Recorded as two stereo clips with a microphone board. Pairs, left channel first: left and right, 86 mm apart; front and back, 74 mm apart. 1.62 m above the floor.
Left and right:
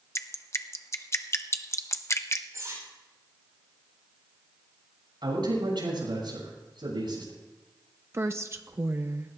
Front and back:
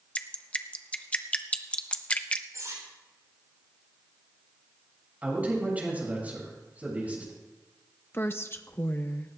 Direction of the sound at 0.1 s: 65° left.